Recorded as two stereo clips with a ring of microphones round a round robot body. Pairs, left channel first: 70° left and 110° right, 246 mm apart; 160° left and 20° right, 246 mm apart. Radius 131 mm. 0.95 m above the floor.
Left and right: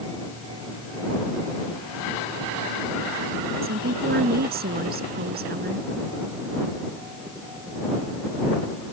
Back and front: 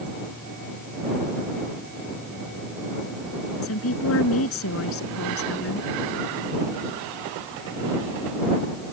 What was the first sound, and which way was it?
A woman speaking, 165° right.